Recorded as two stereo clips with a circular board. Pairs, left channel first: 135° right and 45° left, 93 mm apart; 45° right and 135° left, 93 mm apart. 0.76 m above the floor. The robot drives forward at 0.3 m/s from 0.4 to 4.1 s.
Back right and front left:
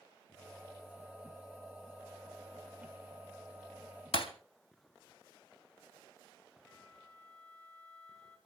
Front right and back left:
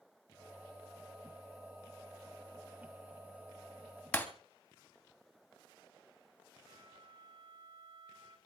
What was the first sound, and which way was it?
Breaking glass, 120° right.